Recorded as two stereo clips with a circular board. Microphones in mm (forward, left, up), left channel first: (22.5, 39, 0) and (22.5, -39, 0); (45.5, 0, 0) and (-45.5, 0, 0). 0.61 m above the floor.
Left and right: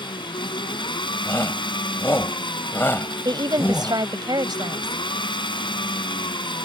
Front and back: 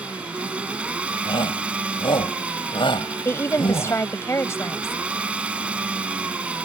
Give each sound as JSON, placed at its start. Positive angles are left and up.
{"t": 0.0, "sound": "an engine running", "azimuth_deg": 100}
{"t": 1.2, "sound": "a shout", "azimuth_deg": 30}
{"t": 3.2, "sound": "a woman speaking", "azimuth_deg": -60}